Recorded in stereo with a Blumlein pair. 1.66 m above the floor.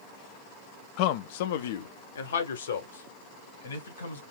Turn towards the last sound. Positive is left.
turn(degrees=70)